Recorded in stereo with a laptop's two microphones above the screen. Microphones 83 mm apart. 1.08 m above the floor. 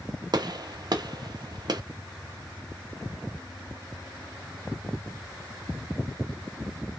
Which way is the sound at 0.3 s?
55° right (ahead or behind).